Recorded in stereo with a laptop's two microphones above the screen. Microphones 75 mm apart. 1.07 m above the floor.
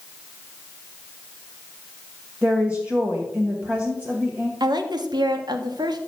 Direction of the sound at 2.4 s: 20° right (ahead or behind).